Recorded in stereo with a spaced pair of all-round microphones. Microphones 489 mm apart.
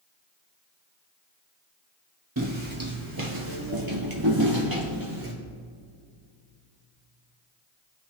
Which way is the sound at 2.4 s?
40° right (ahead or behind).